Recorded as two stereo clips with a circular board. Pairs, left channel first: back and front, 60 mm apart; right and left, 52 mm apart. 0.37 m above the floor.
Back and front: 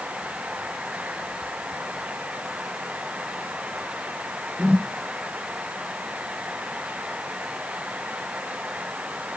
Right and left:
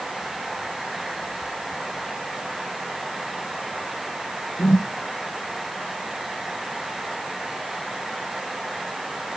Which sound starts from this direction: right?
A whoosh, at 4.6 s.